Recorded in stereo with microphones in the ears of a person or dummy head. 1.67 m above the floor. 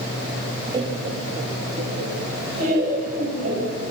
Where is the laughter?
25° right (ahead or behind), 0.8 m; by 3.8 s 60° right (ahead or behind), 4 m.